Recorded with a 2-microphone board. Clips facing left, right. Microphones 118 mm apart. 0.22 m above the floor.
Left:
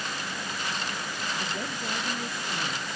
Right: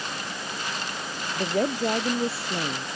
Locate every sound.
1.4 s a woman speaking: 75° right (ahead or behind); by 2.9 s 80° right